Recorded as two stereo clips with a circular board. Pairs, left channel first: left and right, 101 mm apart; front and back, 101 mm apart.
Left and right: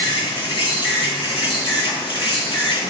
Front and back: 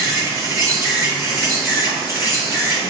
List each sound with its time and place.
0.0 s an insect: 120° left, 2.0 m